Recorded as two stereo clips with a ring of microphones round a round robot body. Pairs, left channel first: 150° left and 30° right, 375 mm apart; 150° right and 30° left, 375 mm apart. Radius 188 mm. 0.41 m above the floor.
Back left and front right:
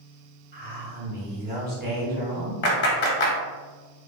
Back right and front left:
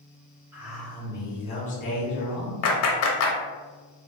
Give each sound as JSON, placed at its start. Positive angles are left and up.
{"t": 0.5, "sound": "a man speaking", "azimuth_deg": -45, "distance_m": 0.8}
{"t": 2.6, "sound": "a clap", "azimuth_deg": -165, "distance_m": 0.8}